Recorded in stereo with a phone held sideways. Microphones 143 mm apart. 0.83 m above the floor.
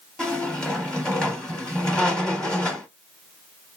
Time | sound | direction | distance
0.2 | a squeak | 5° left (ahead or behind) | 0.7 m